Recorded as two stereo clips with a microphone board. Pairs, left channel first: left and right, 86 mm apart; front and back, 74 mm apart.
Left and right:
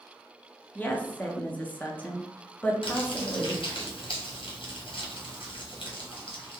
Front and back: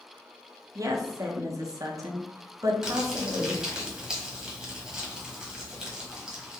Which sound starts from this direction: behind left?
A woman speaking, at 0.8 s.